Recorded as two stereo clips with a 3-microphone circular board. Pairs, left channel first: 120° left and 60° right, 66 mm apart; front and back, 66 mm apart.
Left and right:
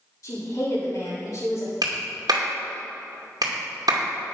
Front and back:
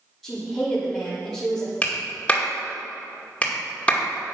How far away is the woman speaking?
About 3.5 m.